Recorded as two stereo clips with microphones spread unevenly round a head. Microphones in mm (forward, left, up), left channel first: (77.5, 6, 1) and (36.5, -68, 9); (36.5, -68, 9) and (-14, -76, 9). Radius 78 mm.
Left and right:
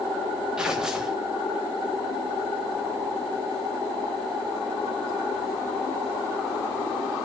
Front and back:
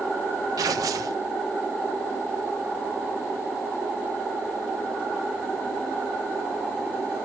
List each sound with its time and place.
0.6 s tearing paper: 155° left, 0.5 m